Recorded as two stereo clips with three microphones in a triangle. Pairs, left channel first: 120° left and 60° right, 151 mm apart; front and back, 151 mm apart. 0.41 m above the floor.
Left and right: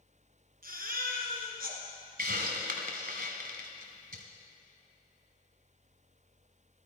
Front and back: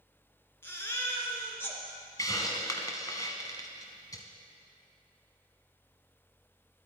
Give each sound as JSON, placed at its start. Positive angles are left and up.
{"t": 0.6, "sound": "a baby crying", "azimuth_deg": -75, "distance_m": 2.0}
{"t": 2.2, "sound": "a hiss", "azimuth_deg": -65, "distance_m": 1.3}